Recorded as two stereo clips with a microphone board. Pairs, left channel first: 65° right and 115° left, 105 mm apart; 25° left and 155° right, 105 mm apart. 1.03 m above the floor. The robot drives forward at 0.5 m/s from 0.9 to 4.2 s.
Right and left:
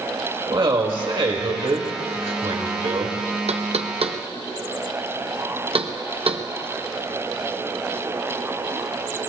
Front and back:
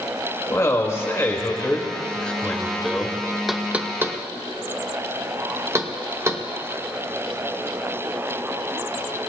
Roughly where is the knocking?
Behind left.